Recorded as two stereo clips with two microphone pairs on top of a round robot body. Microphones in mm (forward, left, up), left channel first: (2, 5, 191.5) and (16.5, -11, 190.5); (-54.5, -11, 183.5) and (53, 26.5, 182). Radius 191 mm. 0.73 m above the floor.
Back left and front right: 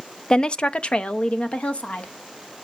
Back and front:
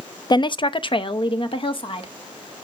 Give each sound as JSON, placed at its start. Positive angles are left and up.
{"t": 0.3, "sound": "a woman speaking", "azimuth_deg": 175, "distance_m": 0.6}